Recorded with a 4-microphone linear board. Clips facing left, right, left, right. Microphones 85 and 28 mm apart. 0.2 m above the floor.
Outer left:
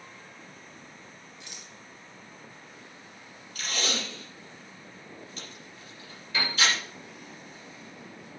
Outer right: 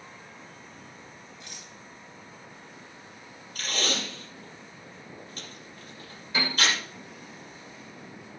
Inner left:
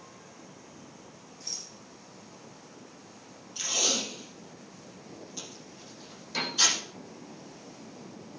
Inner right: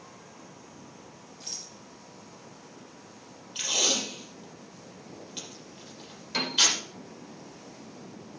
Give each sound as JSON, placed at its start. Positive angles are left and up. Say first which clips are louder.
{"t": 1.4, "sound": "a rattle", "louder": "outer right 1 dB, inner left 1 dB", "side_deg": -40, "distance_m": 4.5}
{"t": 3.5, "sound": "tape being pulled", "louder": "outer right 1 dB, inner right 2 dB", "side_deg": -45, "distance_m": 6.5}
{"t": 6.3, "sound": "a piano", "louder": "outer right 2 dB, inner right 3 dB", "side_deg": -25, "distance_m": 6.5}